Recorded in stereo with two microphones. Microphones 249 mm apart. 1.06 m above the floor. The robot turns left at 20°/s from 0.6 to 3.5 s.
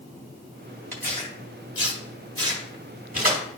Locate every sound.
0.9 s tearing paper: 10° left (ahead or behind), 2.5 m; by 3.4 s 40° right (ahead or behind), 2.5 m